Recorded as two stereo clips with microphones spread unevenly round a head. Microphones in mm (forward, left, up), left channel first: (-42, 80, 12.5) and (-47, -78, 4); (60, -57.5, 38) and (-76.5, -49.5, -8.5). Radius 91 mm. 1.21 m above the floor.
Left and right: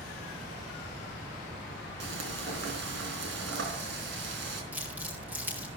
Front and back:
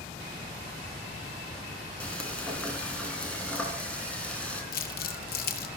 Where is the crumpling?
10° right, 1.7 m.